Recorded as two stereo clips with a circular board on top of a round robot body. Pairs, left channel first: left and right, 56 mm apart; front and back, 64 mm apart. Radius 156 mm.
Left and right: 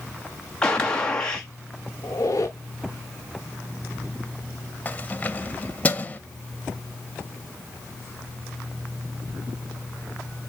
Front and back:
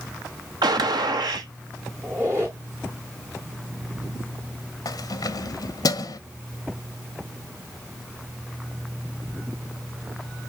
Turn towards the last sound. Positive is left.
turn(degrees=25)